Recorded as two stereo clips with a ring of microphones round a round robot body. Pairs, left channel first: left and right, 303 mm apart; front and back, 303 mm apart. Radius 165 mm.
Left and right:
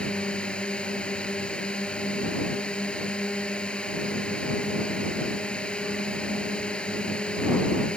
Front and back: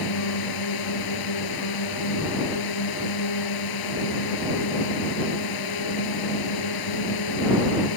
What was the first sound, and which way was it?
A drone, 5° left.